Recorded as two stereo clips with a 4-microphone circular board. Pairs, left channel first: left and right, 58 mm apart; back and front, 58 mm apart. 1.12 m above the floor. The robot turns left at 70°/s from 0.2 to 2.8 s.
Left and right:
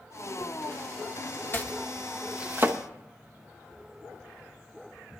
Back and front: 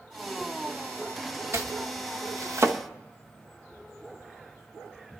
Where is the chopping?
40° left, 1.0 m; by 2.8 s 50° right, 1.0 m.